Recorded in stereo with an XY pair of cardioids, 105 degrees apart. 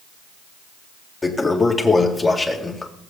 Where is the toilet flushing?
25° left, 2 m.